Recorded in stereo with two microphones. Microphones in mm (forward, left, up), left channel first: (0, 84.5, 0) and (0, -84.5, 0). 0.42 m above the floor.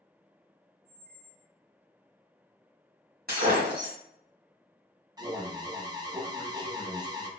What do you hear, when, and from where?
0.8 s a squeak: 70° right (ahead or behind), 1.8 m
3.3 s breaking glass: 70° right (ahead or behind), 1.5 m
5.2 s an alarm: 25° right (ahead or behind), 0.5 m